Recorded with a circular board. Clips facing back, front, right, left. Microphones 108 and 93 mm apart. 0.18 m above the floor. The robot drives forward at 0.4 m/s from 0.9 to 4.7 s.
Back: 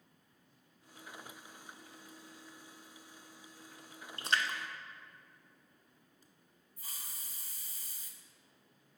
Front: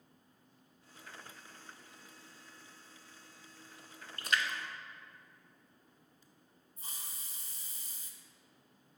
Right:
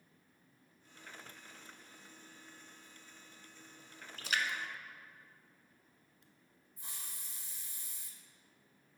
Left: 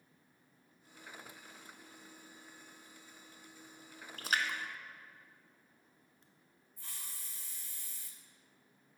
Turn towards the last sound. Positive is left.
turn(degrees=-35)